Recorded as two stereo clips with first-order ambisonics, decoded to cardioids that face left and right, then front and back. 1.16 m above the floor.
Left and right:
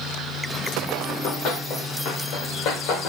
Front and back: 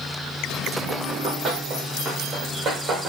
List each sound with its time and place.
1.1 s running footsteps: 105° left, 6.5 m